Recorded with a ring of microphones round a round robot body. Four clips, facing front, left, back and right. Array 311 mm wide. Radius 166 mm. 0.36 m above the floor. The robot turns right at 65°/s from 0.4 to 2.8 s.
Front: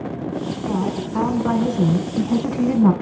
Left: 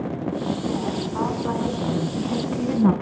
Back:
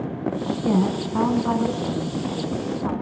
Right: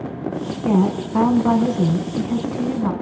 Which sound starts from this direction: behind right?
A woman speaking, at 0.6 s.